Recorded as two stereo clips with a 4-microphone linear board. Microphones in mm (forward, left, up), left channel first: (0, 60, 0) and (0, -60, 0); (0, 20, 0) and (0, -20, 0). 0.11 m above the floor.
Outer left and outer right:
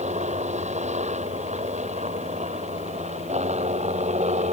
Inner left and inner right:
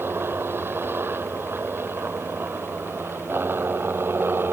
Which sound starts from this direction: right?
A helicopter, at 0.0 s.